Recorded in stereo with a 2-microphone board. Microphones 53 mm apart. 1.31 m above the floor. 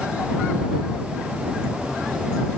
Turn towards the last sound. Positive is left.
No sound to turn to.